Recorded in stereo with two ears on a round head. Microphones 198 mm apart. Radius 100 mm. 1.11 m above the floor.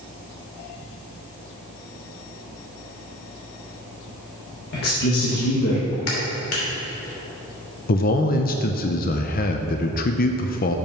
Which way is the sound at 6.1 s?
70° left (ahead or behind).